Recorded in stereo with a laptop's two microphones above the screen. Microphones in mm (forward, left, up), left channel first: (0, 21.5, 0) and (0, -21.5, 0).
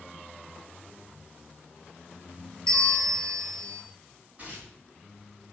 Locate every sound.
2.7 s a bell: 10° left (ahead or behind), 2.5 m
4.4 s tearing paper: 35° right (ahead or behind), 3.5 m